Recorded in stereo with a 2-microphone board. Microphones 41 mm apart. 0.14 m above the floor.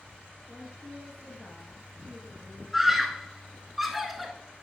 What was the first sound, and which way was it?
A woman speaking, 10° right (ahead or behind).